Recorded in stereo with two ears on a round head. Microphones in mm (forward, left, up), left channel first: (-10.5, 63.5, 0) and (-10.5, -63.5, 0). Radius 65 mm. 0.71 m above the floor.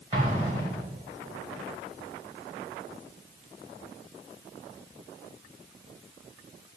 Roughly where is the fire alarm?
I don't hear a fire alarm.